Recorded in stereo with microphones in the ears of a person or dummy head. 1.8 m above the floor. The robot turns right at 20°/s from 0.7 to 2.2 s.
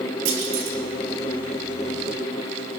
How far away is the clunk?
About 3 m.